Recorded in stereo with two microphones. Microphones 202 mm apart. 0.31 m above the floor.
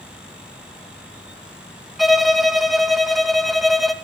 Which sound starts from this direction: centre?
A violin, at 2.0 s.